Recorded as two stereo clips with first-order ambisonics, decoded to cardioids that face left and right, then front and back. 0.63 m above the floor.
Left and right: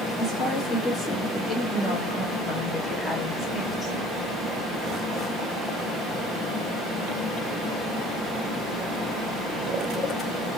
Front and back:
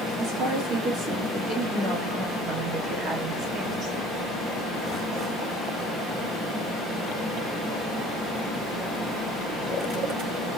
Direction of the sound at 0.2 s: 160° left.